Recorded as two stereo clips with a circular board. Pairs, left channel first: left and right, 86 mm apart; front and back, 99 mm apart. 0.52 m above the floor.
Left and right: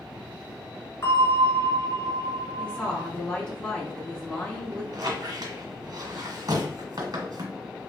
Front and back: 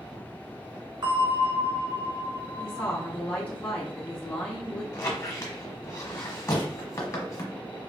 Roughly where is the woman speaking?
Ahead left.